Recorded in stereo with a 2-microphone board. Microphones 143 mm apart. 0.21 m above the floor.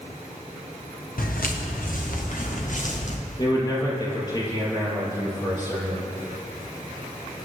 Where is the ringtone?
No ringtone in this recording.